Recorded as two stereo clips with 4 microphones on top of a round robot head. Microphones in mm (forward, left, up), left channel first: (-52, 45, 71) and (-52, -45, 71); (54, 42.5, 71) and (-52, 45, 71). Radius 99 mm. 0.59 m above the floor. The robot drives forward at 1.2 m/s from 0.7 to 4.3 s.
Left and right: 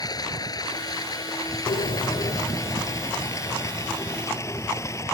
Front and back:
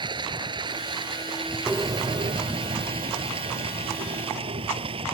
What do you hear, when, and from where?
0.0 s running water: 135° left; by 5.1 s 145° left
1.7 s a bird: 100° left; by 5.0 s 165° left